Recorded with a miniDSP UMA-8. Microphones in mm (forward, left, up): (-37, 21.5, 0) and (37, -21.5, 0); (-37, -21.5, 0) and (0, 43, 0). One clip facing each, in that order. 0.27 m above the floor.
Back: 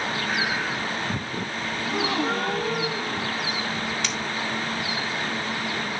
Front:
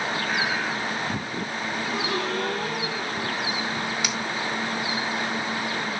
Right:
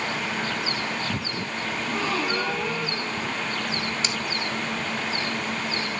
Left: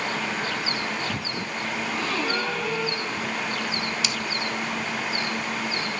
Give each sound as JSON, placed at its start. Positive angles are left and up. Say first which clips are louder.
{"t": 1.8, "sound": "a gasp", "louder": "back 4 dB, right 1 dB", "azimuth_deg": 160, "distance_m": 8.0}
{"t": 4.0, "sound": "scissors", "louder": "front 1 dB, even", "azimuth_deg": -105, "distance_m": 1.8}